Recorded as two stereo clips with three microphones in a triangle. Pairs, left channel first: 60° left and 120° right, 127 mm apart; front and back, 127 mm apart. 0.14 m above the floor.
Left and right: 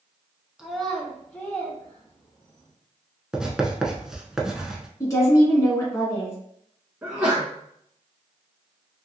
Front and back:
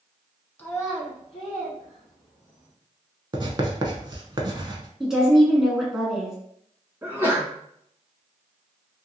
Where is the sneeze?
165° right, 1.1 m.